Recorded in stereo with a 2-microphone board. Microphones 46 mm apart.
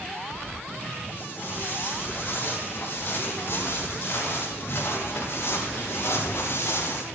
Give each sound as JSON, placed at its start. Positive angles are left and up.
{"t": 1.1, "sound": "footsteps", "side_deg": 40, "distance_m": 7.0}